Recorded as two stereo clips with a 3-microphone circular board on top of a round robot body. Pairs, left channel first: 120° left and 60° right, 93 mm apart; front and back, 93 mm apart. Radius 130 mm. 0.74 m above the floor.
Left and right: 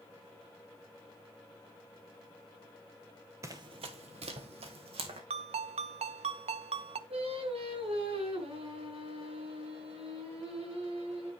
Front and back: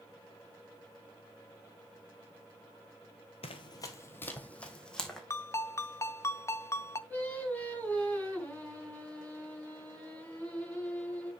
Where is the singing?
75° right, 6.5 m.